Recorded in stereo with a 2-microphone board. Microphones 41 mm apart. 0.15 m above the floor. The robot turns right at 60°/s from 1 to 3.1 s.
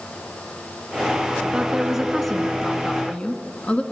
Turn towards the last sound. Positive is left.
turn(degrees=55)